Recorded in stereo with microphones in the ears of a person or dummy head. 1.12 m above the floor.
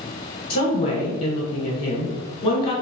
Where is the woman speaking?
35° left (ahead or behind), 1.2 m.